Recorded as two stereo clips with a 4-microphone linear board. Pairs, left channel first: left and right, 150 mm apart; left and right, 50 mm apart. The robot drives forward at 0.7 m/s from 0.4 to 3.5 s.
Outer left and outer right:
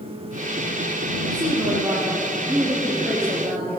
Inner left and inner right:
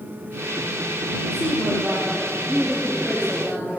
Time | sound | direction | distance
1.3 | a woman speaking | 5° left (ahead or behind) | 3 m